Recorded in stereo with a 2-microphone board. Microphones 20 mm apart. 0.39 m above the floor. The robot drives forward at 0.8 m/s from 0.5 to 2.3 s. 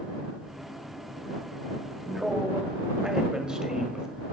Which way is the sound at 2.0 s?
45° right (ahead or behind).